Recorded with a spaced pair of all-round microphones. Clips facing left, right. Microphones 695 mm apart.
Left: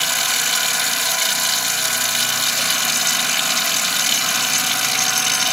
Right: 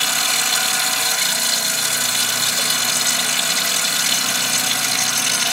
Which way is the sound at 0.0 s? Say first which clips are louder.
Right 1 dB; 70° right (ahead or behind).